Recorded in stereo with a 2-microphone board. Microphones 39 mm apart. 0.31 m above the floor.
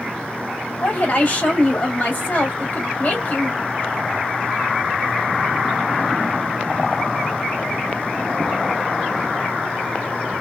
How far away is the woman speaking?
About 1.3 m.